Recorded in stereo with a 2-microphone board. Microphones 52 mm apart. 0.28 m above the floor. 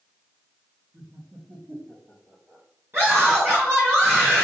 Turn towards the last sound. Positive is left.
turn(degrees=-45)  # may be behind; listen again after turning